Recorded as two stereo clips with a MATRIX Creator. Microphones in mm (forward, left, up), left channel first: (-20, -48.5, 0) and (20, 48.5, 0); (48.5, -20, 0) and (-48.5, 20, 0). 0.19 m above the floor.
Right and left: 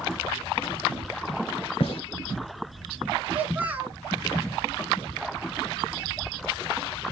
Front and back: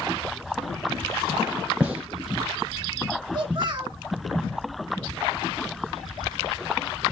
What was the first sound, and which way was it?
A gunshot, 125° right.